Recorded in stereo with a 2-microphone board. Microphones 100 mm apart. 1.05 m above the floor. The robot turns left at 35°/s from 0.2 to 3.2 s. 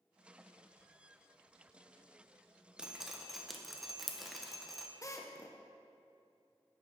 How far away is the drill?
About 0.6 m.